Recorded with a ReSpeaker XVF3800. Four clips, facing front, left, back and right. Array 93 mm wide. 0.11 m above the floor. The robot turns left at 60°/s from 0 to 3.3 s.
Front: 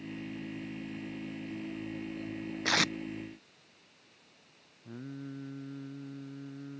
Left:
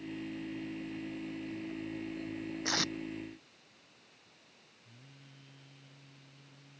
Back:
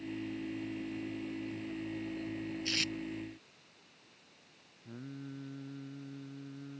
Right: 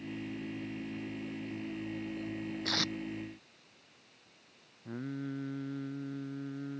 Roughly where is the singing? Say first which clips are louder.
Right 23 dB, front 3 dB; right.